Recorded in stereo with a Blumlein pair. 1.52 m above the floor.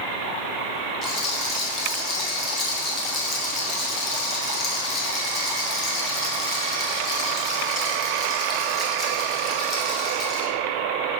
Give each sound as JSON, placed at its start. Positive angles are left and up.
{"t": 1.0, "sound": "a rattle", "azimuth_deg": 20, "distance_m": 1.7}